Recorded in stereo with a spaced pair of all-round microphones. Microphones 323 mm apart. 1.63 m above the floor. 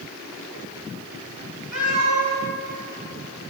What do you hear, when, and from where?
1.7 s a cat meowing: 60° right (ahead or behind), 6 m